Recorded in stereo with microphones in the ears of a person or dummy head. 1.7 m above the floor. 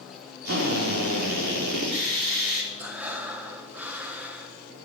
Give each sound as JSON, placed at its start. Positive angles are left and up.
{"t": 0.5, "sound": "a drill", "side_deg": -60, "distance_m": 4.0}
{"t": 2.8, "sound": "breathing", "side_deg": -10, "distance_m": 1.4}